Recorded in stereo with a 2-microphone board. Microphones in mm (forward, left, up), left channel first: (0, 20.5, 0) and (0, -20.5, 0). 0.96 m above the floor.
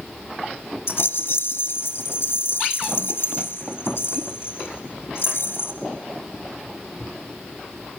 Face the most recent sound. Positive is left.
turn(degrees=70)  # may be behind; listen again after turning